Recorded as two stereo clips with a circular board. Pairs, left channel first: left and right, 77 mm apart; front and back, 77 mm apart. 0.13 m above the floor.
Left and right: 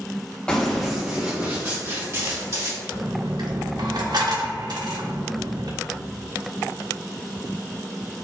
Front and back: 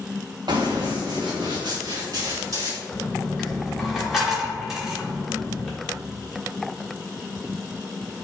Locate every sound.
0.5 s running footsteps: 165° left, 1.2 m; by 2.8 s 135° right, 2.5 m
2.9 s a dropped coin: 95° right, 1.6 m